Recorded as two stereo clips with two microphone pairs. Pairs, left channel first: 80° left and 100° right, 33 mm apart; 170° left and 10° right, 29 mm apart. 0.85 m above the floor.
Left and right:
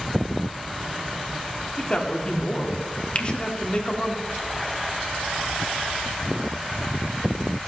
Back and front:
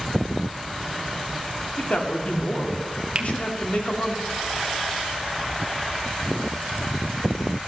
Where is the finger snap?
40° left, 0.9 m.